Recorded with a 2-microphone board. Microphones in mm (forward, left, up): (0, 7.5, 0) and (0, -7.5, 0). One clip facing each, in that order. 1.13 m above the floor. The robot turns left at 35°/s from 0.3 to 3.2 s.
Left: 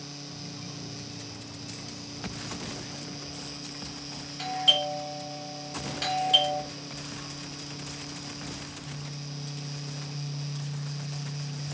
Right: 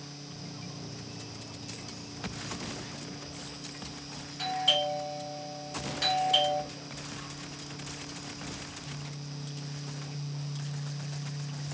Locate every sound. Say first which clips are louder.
4.4 s a doorbell: left 3 dB; 5° left (ahead or behind), 1.5 m